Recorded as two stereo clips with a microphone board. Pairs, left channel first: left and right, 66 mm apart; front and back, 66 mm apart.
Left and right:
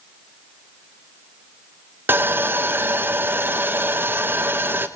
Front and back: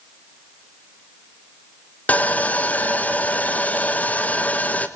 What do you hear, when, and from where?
2.1 s sawing: 55° right, 0.9 m